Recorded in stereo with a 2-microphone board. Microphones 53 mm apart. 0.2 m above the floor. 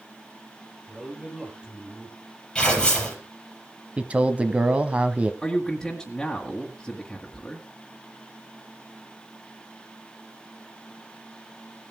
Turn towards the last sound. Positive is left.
turn(degrees=5)  # may be behind; listen again after turning